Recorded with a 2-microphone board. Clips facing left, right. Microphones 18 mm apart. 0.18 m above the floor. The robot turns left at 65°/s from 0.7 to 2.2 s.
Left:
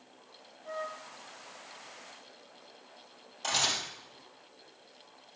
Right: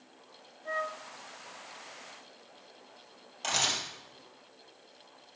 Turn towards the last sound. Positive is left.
turn(degrees=-10)  # may be behind; listen again after turning